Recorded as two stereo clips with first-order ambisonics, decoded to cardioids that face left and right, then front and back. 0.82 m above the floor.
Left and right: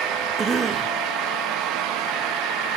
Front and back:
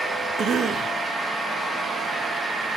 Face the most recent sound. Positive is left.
turn(degrees=-145)